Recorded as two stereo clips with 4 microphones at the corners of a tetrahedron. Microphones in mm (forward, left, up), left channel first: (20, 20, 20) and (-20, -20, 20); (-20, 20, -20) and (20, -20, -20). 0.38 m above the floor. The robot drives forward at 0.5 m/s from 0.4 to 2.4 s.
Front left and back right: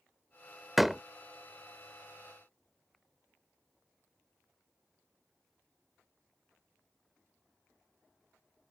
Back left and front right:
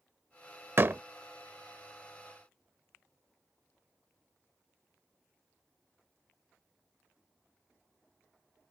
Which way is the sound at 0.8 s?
45° right.